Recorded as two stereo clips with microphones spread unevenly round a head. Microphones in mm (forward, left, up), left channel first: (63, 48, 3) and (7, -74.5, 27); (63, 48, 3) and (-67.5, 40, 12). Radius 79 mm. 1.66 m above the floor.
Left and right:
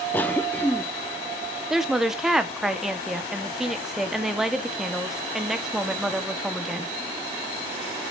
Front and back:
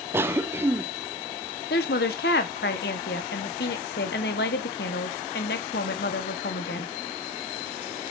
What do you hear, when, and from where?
0.1 s a cough: 155° left, 0.5 m
1.7 s a woman speaking: 30° right, 1.4 m